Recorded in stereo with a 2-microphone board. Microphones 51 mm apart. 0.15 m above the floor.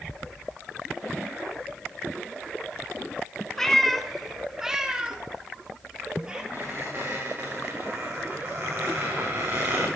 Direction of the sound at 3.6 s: 10° left (ahead or behind).